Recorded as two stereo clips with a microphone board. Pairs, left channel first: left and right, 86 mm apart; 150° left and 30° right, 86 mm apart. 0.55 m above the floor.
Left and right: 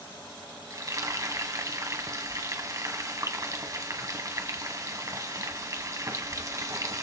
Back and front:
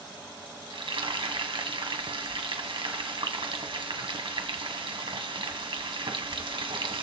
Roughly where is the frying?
Ahead right.